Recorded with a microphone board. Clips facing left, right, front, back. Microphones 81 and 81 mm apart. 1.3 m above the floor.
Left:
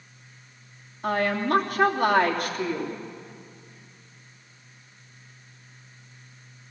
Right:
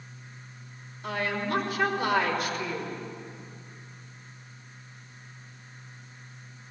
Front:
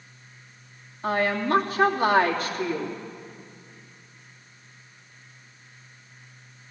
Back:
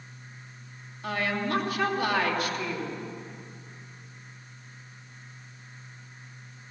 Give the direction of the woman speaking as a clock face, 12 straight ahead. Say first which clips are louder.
Left 6 dB, front 5 dB; 10 o'clock.